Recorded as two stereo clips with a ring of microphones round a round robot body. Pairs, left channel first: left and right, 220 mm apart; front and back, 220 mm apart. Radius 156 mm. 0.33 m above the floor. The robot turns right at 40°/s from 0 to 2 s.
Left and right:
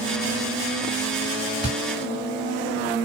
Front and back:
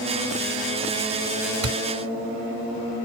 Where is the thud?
165° left, 1.4 m; by 1.8 s 170° left, 1.4 m.